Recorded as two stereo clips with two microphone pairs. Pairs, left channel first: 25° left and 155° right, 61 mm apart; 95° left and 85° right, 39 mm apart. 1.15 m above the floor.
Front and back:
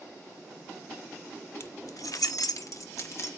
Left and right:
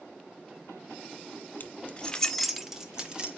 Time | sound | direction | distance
1.6 | keys jangling | 65° left | 1.0 m